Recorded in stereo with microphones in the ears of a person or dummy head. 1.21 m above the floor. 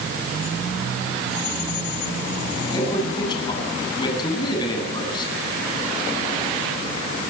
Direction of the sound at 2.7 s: 25° left (ahead or behind).